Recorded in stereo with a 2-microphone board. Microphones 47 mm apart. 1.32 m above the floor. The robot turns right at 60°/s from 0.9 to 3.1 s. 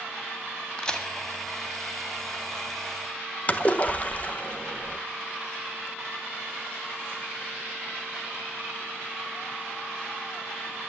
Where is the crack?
20° left (ahead or behind), 1.8 m; by 1.1 s 10° left (ahead or behind), 1.8 m.